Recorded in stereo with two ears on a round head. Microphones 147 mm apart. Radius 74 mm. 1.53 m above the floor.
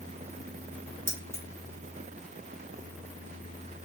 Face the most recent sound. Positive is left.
turn(degrees=-15)  # may be behind; listen again after turning